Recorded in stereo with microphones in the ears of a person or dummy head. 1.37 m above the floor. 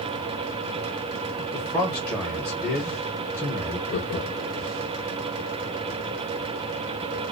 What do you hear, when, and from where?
1.4 s a man speaking: centre (ahead or behind), 0.7 m
3.9 s laughter: 50° left (ahead or behind), 0.5 m